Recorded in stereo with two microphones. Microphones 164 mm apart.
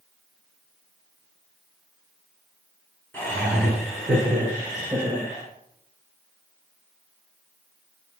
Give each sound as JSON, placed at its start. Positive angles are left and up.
{"t": 3.1, "sound": "laughter", "side_deg": 10, "distance_m": 1.2}